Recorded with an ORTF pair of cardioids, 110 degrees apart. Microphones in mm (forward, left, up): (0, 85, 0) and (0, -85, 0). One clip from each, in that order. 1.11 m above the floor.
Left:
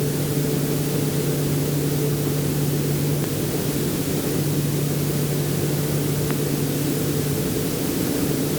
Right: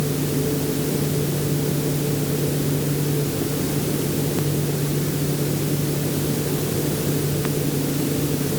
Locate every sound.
Only background noise.